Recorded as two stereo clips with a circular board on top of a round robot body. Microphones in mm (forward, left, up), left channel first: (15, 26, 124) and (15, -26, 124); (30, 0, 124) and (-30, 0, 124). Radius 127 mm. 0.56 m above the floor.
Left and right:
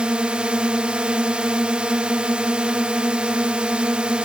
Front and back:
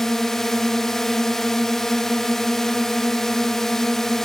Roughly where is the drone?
Right.